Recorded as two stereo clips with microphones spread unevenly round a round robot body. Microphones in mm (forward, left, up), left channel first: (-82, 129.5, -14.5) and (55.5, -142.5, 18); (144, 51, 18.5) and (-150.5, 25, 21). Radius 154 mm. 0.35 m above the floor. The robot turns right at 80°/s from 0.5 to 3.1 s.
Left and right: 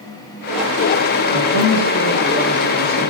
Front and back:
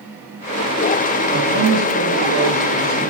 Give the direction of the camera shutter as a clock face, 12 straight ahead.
No camera shutter in this recording.